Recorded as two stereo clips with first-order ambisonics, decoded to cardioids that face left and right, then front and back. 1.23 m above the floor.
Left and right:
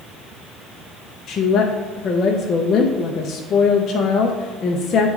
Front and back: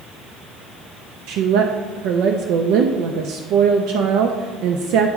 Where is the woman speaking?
150° left, 0.5 m.